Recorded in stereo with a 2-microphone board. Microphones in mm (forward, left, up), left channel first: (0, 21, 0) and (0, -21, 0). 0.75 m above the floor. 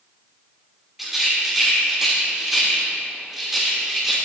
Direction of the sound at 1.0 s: 10° right (ahead or behind).